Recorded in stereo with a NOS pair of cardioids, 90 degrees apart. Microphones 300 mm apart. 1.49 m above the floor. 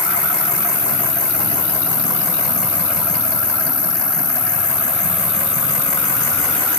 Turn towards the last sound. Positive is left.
turn(degrees=35)